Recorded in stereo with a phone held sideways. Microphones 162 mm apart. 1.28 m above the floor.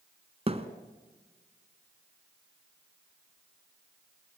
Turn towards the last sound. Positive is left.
turn(degrees=-40)  # may be behind; listen again after turning